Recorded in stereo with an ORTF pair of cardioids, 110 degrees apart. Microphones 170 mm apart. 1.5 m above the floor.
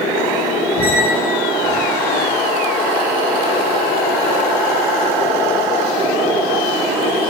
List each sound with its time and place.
0.8 s a squeak: 20° left, 1.2 m